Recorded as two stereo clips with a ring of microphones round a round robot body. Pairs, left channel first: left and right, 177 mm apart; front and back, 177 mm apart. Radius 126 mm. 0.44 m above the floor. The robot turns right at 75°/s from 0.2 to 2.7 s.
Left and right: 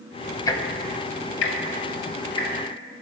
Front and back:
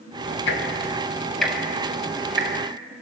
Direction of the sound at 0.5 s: 20° left.